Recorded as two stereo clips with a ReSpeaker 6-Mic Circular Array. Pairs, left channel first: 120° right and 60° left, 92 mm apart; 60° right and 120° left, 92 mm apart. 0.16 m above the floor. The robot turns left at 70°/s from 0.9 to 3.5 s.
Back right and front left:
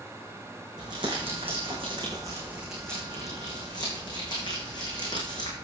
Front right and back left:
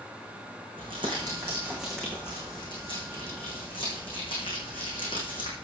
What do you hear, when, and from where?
0.8 s crumpling: 100° left, 6.5 m; by 5.5 s 80° right, 6.5 m